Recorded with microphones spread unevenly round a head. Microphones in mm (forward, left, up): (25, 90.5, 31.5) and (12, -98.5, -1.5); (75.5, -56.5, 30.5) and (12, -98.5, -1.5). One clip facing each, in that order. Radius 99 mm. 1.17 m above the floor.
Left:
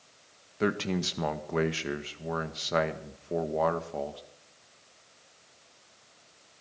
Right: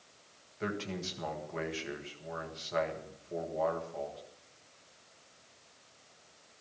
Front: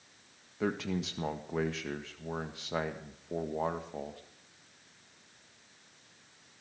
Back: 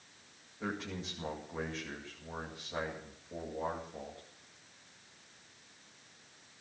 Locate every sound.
0.6 s a man speaking: 65° left, 1.8 m